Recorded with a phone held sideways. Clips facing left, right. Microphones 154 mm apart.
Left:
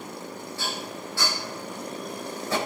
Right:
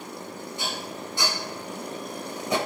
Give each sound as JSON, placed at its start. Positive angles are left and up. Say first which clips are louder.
{"t": 0.6, "sound": "dishes clattering", "louder": "even", "side_deg": -20, "distance_m": 4.0}